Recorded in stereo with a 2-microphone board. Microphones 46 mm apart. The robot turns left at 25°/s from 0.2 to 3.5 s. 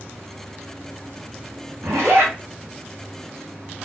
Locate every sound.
1.8 s a zipper: 70° right (ahead or behind), 1.5 m; by 2.3 s 80° right, 1.5 m